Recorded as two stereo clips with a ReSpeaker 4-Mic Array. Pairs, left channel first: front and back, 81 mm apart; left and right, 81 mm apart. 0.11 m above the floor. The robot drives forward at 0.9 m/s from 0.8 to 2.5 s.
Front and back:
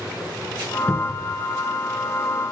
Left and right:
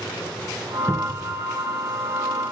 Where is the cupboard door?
60° left, 0.7 m; by 1.3 s 145° left, 0.7 m.